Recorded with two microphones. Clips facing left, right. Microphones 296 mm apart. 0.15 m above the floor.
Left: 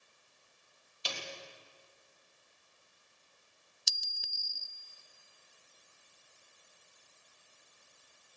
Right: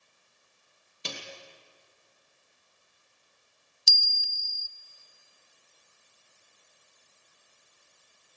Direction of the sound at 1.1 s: 60° right (ahead or behind).